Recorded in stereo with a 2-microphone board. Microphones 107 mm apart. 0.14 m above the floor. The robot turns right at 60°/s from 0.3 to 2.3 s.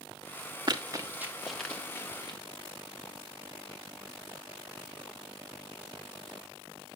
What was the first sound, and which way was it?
Running footsteps, 50° right (ahead or behind).